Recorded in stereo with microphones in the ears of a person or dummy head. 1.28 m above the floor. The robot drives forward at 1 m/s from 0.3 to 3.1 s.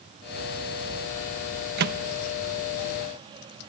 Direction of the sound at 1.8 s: 55° right (ahead or behind).